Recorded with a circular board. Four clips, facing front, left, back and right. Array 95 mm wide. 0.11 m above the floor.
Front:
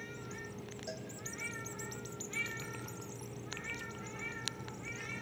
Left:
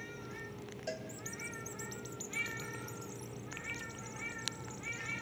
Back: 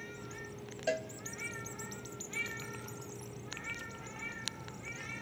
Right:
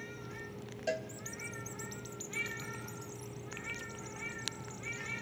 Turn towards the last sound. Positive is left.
turn(degrees=-160)